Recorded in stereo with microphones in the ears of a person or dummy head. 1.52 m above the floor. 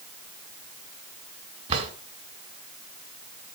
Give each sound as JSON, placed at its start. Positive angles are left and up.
{"t": 1.7, "sound": "a drawer", "side_deg": -40, "distance_m": 2.5}